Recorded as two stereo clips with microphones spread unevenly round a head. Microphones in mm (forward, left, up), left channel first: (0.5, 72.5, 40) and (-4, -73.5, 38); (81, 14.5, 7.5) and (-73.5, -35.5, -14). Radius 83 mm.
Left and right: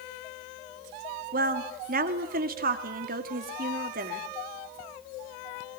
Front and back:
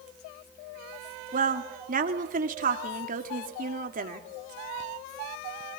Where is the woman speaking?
120° right, 2 m.